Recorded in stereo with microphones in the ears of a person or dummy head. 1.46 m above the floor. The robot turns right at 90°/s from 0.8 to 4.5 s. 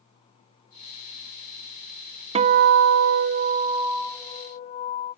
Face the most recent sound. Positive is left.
turn(degrees=45)